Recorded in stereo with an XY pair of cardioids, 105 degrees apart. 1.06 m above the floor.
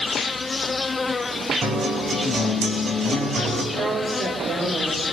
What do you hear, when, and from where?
0.0 s an insect: 25° left, 0.7 m
1.6 s a guitar: 50° right, 4.5 m
3.7 s a woman speaking: 60° right, 4 m